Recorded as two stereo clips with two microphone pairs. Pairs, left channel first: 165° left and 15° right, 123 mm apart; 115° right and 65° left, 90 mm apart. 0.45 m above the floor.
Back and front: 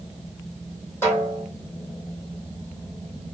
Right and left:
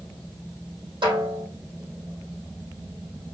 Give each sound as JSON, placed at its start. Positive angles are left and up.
{"t": 1.0, "sound": "a snare drum", "azimuth_deg": 95, "distance_m": 3.0}